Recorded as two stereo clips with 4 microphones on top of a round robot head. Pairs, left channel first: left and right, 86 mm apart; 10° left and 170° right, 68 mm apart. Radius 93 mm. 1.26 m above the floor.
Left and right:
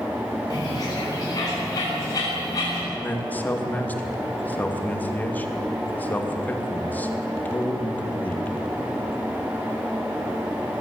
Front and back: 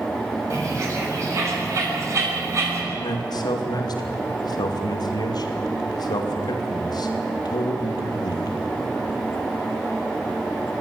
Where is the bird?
145° left, 7.5 m.